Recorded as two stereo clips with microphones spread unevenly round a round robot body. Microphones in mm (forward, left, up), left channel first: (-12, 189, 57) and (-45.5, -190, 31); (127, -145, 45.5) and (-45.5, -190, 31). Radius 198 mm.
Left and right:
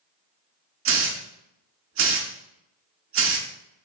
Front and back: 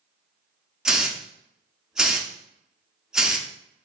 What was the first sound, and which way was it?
A hiss, 85° right.